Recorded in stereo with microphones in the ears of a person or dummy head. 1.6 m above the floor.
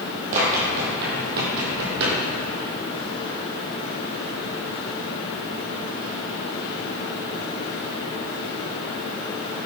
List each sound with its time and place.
0.3 s running footsteps: 40° right (ahead or behind), 2.5 m; by 2.2 s 55° right (ahead or behind), 3 m